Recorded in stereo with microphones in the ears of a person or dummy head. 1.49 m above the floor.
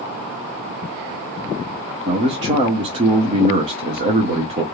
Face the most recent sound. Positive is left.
turn(degrees=-30)  # may be behind; listen again after turning